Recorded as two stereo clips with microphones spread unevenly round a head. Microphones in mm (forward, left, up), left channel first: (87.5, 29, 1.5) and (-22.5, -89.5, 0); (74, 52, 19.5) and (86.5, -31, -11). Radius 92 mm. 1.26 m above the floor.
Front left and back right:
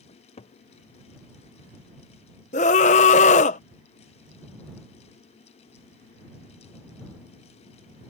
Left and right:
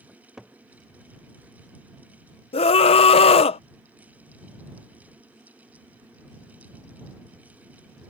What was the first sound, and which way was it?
A cupboard door, 5° right.